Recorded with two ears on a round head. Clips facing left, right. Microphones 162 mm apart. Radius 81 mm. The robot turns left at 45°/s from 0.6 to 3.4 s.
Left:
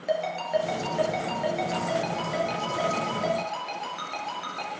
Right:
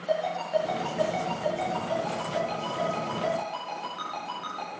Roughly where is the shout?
No shout in this recording.